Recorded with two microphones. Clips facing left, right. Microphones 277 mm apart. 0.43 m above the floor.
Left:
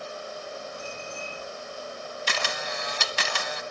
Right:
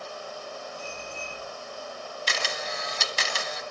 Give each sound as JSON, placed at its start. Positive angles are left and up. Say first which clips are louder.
{"t": 0.8, "sound": "a bicycle bell", "louder": "left 1 dB", "side_deg": 65, "distance_m": 10.0}
{"t": 2.3, "sound": "a camera shutter", "louder": "left 1 dB", "side_deg": 65, "distance_m": 0.9}